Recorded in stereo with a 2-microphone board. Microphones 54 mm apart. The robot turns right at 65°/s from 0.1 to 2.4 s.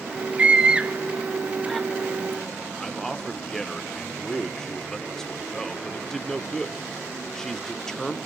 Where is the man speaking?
10° left (ahead or behind), 0.8 m.